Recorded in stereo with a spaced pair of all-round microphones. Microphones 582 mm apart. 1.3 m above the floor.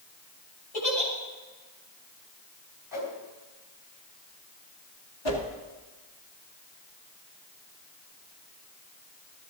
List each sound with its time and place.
0.7 s a giggle: 75° left (ahead or behind), 3.5 m
2.9 s a whoosh: 40° right (ahead or behind), 3 m
5.2 s a whoosh: 45° left (ahead or behind), 1.9 m